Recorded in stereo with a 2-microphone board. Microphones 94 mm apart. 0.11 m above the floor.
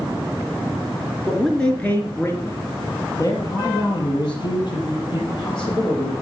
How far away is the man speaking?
About 1.8 m.